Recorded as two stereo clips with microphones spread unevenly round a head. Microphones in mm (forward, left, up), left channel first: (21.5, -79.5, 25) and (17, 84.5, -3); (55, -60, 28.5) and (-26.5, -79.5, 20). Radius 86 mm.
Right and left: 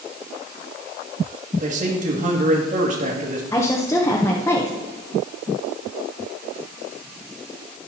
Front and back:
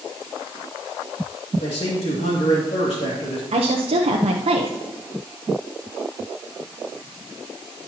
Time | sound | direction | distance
1.6 | a man speaking | 50° left | 2.5 m
3.5 | a woman speaking | 165° right | 0.8 m